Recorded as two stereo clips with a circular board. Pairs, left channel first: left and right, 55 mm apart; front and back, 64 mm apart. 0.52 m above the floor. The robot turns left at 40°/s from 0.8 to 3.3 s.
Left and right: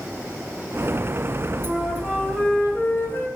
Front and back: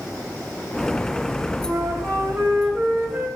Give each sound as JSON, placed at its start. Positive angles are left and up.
{"t": 1.6, "sound": "a flute", "azimuth_deg": 170, "distance_m": 3.0}